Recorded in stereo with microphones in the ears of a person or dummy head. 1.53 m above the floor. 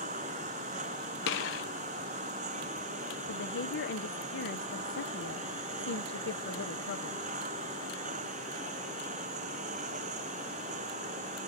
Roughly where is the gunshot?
Left.